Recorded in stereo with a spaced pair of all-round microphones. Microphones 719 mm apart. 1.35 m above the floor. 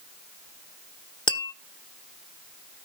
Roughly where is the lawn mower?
No lawn mower in this recording.